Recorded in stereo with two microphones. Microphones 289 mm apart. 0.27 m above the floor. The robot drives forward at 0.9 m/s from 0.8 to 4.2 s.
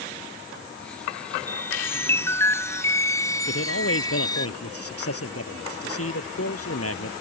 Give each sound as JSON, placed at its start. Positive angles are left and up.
{"t": 1.5, "sound": "a chime", "side_deg": 5}
{"t": 3.5, "sound": "a man speaking", "side_deg": 50}